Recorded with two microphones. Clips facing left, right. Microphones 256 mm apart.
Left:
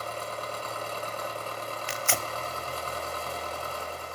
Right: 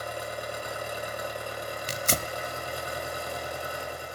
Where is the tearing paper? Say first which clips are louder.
Right 2 dB; 40° right (ahead or behind), 0.6 m.